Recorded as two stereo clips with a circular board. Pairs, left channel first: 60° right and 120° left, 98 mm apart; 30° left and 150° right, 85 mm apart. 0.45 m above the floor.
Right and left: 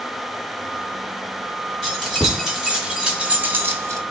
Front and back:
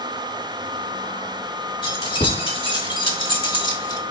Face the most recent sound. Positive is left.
turn(degrees=70)